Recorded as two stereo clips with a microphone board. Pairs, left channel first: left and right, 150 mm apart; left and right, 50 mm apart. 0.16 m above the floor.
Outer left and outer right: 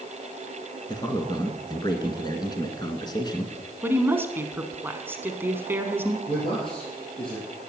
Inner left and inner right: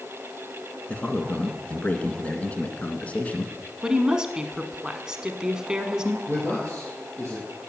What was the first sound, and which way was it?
A man speaking, 25° left (ahead or behind).